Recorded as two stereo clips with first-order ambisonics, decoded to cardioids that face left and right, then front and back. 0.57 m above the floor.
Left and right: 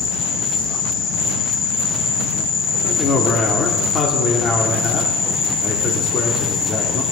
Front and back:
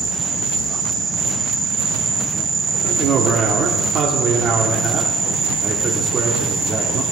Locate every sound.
0.0 s an insect: 120° left, 5.5 m
2.8 s a man speaking: 135° left, 1.3 m